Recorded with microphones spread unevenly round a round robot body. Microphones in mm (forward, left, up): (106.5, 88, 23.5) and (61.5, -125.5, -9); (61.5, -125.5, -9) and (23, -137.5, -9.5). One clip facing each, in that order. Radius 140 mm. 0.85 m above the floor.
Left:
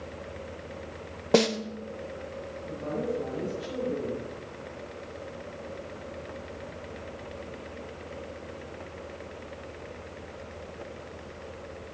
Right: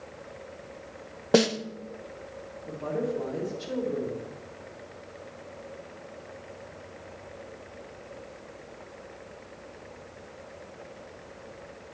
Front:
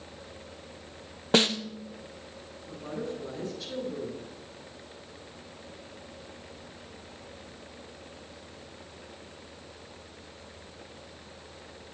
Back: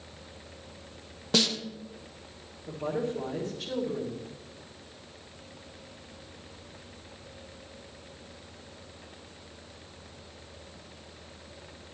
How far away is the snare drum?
About 0.9 m.